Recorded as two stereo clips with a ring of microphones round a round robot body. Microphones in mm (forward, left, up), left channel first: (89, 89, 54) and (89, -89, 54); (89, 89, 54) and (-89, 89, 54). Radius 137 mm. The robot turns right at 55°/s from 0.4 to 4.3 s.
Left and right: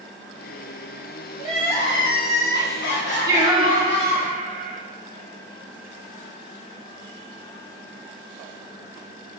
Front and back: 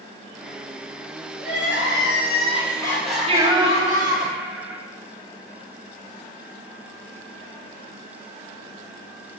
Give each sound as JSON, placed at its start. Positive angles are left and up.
{"t": 1.4, "sound": "crying", "azimuth_deg": -5, "distance_m": 3.5}
{"t": 3.3, "sound": "singing", "azimuth_deg": -150, "distance_m": 1.4}